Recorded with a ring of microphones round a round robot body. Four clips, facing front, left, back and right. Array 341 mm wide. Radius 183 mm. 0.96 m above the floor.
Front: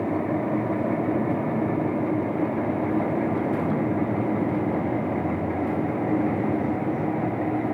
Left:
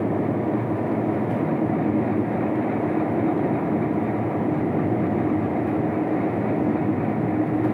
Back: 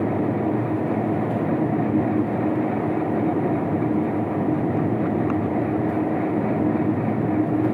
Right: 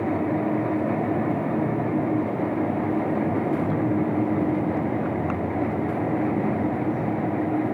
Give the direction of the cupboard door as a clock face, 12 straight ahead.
I don't hear a cupboard door.